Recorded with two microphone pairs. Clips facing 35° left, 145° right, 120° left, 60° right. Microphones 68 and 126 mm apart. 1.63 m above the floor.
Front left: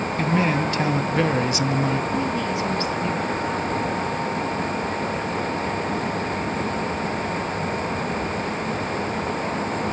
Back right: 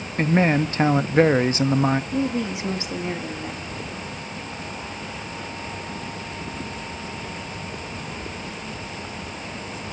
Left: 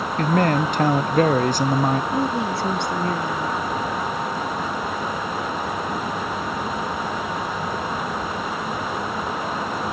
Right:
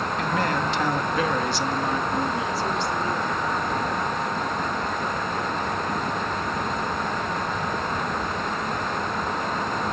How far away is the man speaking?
About 0.7 m.